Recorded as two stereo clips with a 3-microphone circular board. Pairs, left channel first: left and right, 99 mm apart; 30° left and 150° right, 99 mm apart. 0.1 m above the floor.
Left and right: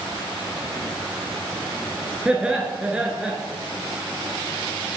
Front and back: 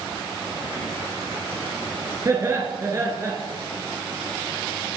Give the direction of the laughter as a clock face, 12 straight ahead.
5 o'clock.